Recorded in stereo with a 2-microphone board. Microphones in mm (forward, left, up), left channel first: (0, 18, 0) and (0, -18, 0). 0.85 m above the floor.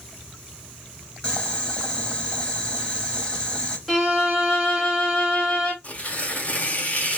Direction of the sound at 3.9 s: 10° left (ahead or behind).